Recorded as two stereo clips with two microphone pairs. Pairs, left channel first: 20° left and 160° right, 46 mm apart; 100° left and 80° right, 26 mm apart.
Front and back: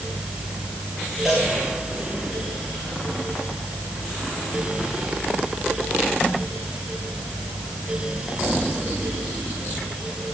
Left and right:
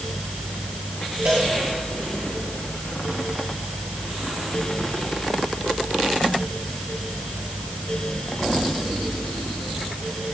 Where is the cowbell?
70° right, 5.5 m.